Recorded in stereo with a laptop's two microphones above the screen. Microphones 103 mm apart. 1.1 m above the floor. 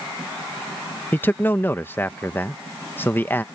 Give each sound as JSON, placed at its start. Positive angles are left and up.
{"t": 1.1, "sound": "a man speaking", "side_deg": 20}